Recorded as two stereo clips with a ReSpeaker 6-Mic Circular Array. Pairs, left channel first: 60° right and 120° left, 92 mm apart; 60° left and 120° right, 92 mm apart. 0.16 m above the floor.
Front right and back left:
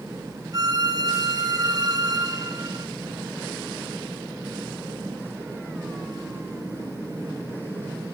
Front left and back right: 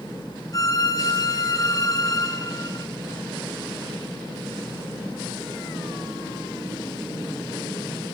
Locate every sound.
0.5 s a violin: 90° left, 1.8 m